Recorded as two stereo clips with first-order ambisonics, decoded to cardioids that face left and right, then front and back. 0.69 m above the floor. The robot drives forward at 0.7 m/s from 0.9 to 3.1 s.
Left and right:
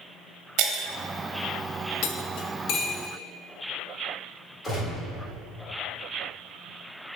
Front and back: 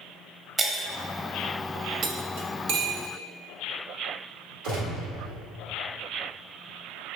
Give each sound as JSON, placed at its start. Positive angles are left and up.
{"t": 0.6, "sound": "breaking glass", "azimuth_deg": -110, "distance_m": 1.1}
{"t": 2.0, "sound": "cutlery clinking", "azimuth_deg": 115, "distance_m": 0.7}
{"t": 4.6, "sound": "a gunshot", "azimuth_deg": 175, "distance_m": 1.8}